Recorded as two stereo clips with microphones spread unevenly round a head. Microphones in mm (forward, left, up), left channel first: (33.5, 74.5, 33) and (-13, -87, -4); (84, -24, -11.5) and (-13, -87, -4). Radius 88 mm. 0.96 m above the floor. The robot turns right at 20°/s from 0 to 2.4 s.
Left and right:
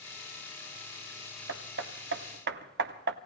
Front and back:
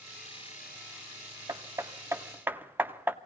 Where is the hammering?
95° right, 0.7 m; by 3.2 s 75° right, 0.7 m.